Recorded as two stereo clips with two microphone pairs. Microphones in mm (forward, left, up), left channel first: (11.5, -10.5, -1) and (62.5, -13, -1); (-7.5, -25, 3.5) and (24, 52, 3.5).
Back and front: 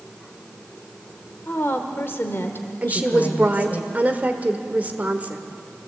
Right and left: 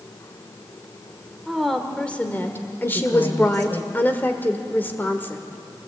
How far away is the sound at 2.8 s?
About 1.6 m.